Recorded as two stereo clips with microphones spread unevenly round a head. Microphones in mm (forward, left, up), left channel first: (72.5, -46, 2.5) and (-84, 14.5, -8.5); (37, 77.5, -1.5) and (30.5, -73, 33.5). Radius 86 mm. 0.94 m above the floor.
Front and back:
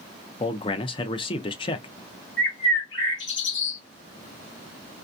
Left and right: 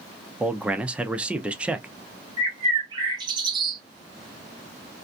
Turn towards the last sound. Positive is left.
turn(degrees=-30)